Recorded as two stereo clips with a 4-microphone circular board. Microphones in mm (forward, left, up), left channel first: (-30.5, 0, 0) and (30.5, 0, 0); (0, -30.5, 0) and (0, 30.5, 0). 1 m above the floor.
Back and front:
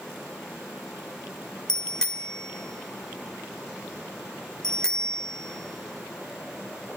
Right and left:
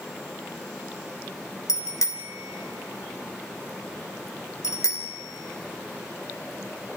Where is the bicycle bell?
100° right, 2.5 m.